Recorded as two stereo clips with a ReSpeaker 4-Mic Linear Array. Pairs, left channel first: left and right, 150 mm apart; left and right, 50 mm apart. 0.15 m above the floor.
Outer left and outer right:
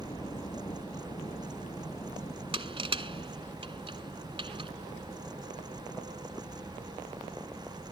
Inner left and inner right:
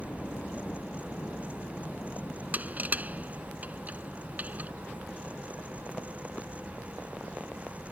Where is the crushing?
35° right (ahead or behind).